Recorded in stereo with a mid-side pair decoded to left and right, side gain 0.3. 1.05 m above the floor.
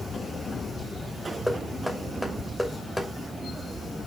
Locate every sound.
1.5 s knocking: 5° left, 2.5 m